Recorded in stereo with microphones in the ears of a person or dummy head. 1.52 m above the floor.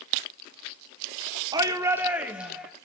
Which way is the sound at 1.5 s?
25° right (ahead or behind).